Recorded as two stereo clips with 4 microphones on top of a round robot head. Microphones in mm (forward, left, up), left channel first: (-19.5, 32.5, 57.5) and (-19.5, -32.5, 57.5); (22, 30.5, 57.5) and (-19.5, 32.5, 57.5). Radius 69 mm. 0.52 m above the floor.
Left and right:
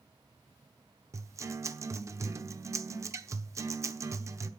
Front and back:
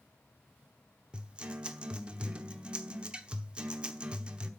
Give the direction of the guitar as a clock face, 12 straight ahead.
4 o'clock.